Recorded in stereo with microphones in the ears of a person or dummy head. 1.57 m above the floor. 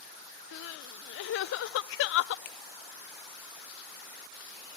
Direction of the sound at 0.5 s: 80° left.